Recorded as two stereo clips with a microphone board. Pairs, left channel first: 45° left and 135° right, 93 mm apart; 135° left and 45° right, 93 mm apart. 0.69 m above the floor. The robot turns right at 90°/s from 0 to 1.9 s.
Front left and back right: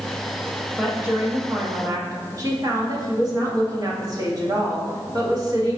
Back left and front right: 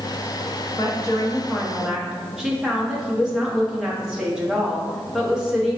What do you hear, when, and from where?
0.8 s a woman speaking: 135° left, 0.9 m; by 5.8 s 120° right, 0.9 m